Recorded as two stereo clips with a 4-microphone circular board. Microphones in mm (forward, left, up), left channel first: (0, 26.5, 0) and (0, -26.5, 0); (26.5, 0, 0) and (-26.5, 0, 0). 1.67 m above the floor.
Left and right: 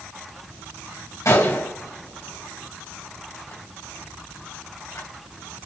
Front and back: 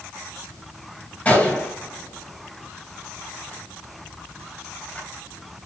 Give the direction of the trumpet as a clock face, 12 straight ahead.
I don't hear a trumpet.